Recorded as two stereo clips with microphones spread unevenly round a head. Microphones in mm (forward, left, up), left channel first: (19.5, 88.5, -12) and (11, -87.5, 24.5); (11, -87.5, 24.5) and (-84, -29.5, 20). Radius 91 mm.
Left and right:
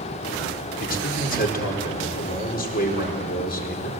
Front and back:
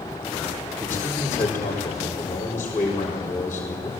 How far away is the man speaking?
About 4.5 m.